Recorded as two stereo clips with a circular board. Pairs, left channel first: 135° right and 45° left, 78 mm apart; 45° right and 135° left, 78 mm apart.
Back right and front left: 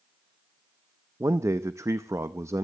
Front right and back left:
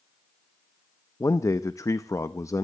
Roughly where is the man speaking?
Ahead.